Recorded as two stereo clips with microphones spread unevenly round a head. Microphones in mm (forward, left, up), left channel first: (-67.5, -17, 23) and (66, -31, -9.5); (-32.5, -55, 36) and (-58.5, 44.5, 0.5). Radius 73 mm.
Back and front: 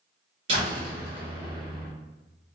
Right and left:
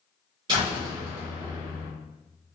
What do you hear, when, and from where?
0.5 s a door slam: 45° left, 1.0 m